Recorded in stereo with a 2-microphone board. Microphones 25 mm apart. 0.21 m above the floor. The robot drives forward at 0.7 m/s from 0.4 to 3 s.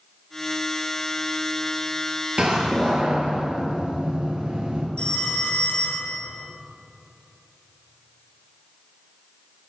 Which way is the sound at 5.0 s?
45° left (ahead or behind).